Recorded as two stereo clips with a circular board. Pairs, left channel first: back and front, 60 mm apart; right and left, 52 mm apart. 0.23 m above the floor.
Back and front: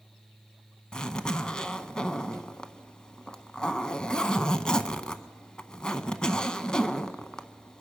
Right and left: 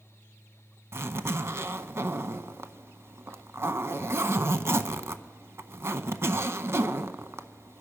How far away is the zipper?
About 0.6 m.